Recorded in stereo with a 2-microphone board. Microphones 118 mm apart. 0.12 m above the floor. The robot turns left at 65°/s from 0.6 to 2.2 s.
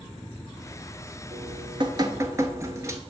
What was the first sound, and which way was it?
Dripping, 90° right.